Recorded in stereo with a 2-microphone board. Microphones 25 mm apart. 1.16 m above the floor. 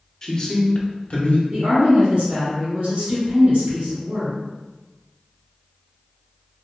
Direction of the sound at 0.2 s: 15° left (ahead or behind).